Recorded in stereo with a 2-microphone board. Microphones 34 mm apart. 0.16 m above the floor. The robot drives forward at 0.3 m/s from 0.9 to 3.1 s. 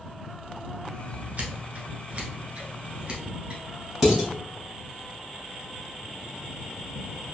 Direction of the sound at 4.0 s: 10° right (ahead or behind).